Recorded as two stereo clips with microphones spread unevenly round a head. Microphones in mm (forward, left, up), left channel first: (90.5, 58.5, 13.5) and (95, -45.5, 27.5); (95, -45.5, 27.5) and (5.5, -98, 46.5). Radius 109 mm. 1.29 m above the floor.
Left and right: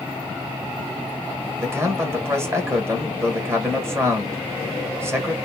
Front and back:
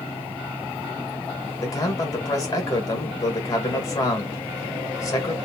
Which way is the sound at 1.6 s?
20° right.